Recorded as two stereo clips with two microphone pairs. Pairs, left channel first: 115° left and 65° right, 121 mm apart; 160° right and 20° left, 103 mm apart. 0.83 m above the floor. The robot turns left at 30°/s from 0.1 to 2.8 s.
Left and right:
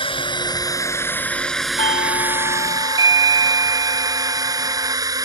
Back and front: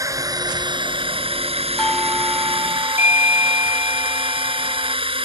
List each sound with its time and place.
0.0 s a drone: 75° left; by 5.3 s 5° right
1.8 s a doorbell: 115° left; by 5.0 s 85° left